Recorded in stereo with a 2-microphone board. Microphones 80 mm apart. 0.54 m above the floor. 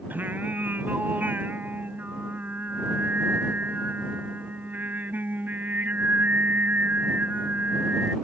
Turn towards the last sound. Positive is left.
turn(degrees=-20)  # may be behind; listen again after turning